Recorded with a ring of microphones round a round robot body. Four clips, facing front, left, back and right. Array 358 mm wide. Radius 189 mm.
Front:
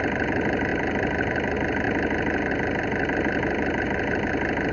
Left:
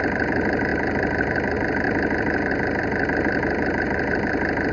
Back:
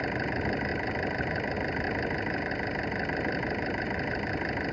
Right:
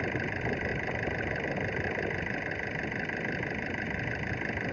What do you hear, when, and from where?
0.0 s an engine running: 60° left